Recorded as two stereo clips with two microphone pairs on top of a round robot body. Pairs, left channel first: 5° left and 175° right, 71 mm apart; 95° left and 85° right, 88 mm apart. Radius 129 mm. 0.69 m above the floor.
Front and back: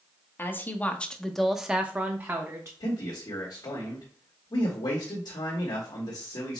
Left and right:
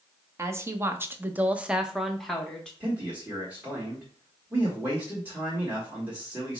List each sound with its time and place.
0.4 s a woman speaking: 45° right, 1.1 m; by 2.7 s straight behind, 1.1 m
2.8 s a man speaking: 15° right, 1.4 m